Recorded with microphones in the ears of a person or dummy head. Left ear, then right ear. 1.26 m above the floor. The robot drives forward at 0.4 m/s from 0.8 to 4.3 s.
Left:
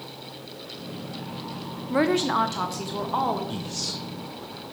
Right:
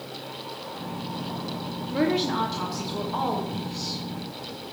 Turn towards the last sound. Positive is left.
turn(degrees=60)  # may be behind; listen again after turning